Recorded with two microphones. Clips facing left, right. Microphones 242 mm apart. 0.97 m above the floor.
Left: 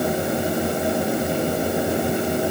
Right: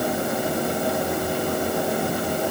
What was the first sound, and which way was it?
Only background noise.